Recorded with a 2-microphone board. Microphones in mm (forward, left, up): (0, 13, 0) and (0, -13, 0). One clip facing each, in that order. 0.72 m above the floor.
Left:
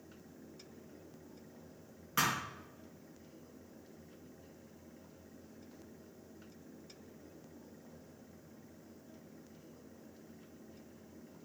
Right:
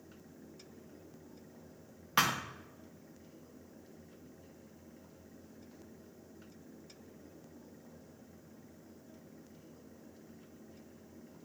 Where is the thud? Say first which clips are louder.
Right 3 dB; 55° right (ahead or behind), 0.7 m.